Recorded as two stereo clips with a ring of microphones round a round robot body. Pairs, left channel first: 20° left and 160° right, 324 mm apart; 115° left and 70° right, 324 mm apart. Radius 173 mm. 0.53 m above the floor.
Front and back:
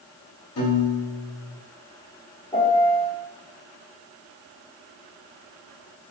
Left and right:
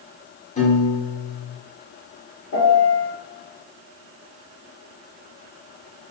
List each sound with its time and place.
0.6 s a piano: 50° left, 1.3 m
2.5 s a piano: 90° left, 1.0 m